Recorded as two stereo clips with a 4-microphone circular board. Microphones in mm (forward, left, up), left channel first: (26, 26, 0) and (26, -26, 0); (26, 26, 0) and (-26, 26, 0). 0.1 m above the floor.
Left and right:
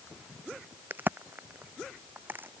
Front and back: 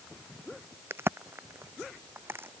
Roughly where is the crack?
Behind right.